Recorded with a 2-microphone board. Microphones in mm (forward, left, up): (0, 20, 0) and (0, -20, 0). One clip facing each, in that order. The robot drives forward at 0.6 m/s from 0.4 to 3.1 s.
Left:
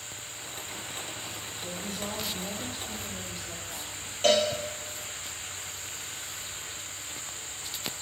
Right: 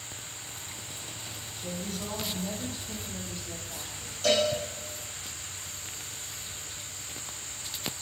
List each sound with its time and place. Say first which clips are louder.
1.6 s a woman speaking: right 1 dB; 10° left (ahead or behind), 2.0 m; by 4.1 s 5° left (ahead or behind), 3 m
4.2 s a cowbell: left 2 dB; 45° left (ahead or behind), 3.5 m